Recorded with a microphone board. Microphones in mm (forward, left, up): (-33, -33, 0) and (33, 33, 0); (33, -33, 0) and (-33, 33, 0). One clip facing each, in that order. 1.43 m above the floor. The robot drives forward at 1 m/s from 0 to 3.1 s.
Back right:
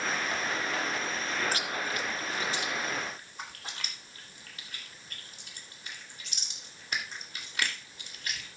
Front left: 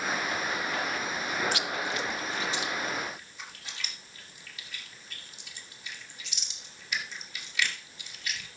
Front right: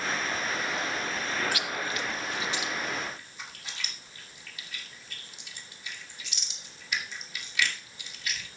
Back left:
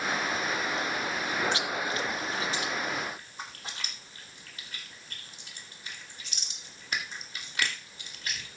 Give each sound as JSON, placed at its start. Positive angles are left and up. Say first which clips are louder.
{"t": 1.5, "sound": "chewing", "louder": "front left 1 dB, back left 2 dB", "azimuth_deg": -170, "distance_m": 0.7}